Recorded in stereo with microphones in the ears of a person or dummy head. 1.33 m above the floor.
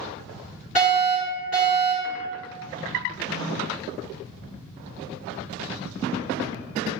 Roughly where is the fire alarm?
Left.